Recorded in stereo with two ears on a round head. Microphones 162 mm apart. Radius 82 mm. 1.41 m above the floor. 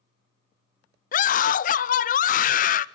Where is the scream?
45° left (ahead or behind), 0.6 m.